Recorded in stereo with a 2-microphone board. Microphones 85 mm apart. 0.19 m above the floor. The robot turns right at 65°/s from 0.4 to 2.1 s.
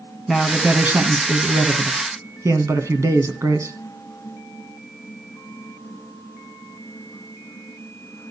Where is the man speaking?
175° right, 2.0 m; by 3.7 s 65° right, 2.0 m.